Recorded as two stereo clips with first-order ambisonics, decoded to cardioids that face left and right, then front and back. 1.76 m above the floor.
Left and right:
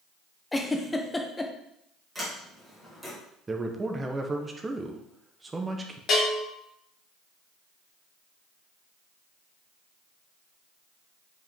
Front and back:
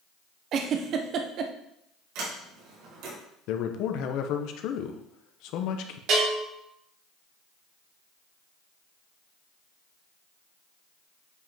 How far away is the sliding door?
About 3.5 m.